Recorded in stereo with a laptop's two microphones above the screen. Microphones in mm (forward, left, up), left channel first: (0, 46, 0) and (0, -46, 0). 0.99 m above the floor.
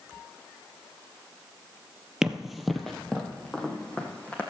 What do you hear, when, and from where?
2.2 s running footsteps: 5° right (ahead or behind), 1.2 m; by 4.4 s 15° left (ahead or behind), 2.5 m